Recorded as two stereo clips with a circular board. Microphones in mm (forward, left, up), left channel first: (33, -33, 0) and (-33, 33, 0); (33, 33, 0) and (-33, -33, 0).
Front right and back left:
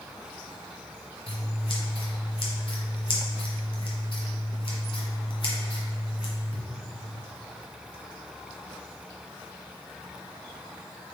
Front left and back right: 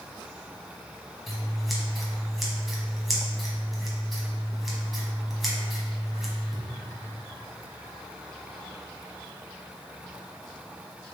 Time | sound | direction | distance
1.3 | scissors | 45° right | 1.2 m